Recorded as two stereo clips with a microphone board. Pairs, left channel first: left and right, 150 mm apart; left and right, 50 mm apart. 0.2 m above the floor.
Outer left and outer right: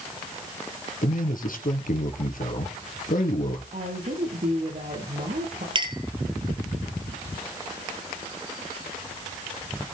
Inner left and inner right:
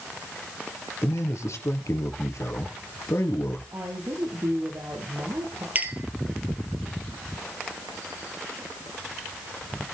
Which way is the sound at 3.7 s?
60° right (ahead or behind).